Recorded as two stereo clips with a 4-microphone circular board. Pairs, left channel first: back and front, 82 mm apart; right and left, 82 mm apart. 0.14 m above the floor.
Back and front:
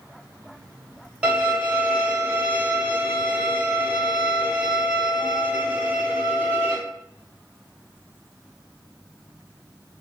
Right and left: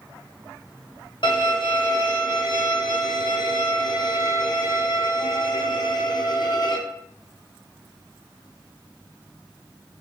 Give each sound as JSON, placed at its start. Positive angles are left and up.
{"t": 1.2, "sound": "a violin", "azimuth_deg": -75, "distance_m": 1.2}